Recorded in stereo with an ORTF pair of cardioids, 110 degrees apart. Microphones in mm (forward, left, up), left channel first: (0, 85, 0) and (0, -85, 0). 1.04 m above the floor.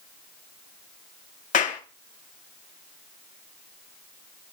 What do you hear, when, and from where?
1.5 s a clap: 45° left, 1.8 m